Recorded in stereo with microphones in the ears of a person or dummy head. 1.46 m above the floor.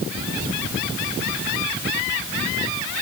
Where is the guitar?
No guitar in this recording.